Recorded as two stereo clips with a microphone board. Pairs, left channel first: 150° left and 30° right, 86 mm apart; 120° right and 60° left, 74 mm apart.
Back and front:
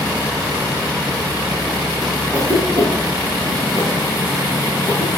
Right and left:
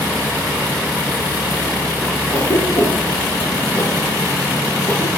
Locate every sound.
2.3 s a cough: 80° right, 3 m